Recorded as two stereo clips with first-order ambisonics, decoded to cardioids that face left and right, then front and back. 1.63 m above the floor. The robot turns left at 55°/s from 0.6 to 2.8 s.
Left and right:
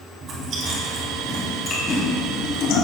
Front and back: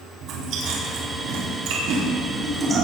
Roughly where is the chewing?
Behind right.